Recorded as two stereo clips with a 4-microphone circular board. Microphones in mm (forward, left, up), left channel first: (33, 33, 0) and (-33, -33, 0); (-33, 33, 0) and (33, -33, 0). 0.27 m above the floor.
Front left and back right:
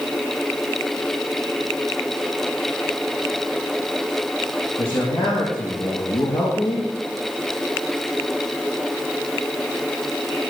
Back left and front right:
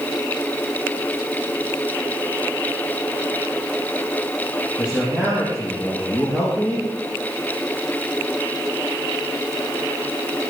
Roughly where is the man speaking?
Ahead left.